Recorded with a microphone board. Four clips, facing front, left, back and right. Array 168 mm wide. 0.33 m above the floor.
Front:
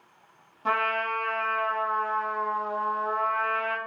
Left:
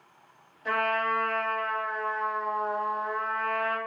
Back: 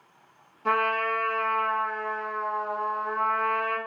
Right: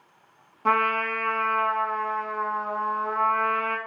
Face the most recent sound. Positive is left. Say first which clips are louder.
# right 4 dB, back 2 dB
turn(degrees=-80)